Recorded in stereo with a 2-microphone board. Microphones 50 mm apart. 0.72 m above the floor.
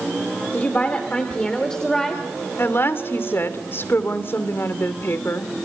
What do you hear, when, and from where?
0.5 s a woman speaking: 30° left (ahead or behind), 2.5 m; by 2.2 s 5° left (ahead or behind), 3 m
2.6 s a woman speaking: 50° left (ahead or behind), 2 m